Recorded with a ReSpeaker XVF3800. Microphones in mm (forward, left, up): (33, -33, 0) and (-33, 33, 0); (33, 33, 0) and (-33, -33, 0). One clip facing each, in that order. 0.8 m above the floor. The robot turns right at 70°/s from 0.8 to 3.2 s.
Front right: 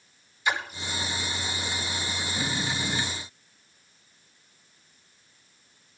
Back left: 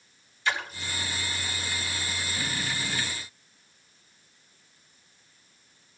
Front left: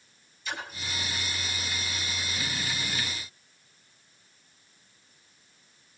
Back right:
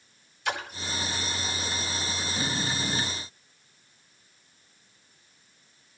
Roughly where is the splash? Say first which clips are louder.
Front right 2 dB, back right 5 dB; behind right.